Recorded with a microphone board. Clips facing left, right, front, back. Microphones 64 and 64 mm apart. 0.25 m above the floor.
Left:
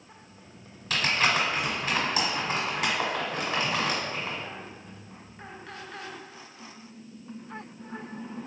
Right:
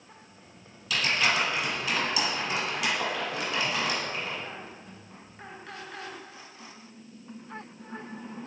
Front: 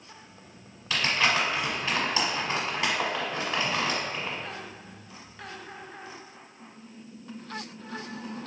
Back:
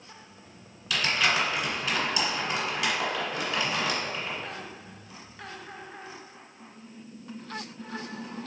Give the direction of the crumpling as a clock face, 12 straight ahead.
10 o'clock.